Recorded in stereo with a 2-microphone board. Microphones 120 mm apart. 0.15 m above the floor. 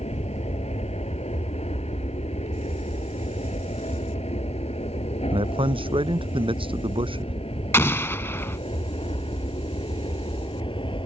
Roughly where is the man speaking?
Right.